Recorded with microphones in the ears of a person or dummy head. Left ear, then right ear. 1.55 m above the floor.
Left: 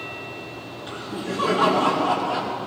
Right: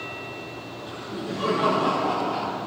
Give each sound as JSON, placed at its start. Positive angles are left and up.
{"t": 0.9, "sound": "laughter", "side_deg": 40, "distance_m": 3.5}